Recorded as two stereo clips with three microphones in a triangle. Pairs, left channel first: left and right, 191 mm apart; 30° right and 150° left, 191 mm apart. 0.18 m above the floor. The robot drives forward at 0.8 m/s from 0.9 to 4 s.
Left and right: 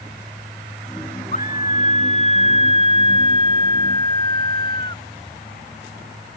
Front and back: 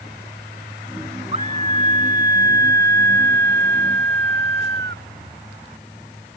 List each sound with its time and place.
1.3 s a scream: 110° left; by 5.1 s 155° left